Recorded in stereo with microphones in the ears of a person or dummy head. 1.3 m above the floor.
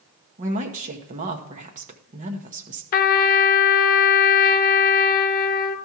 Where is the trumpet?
55° left (ahead or behind), 0.8 m.